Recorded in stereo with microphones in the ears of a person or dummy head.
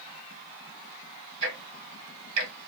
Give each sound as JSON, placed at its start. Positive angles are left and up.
{"t": 1.4, "sound": "ticking", "side_deg": -70, "distance_m": 1.4}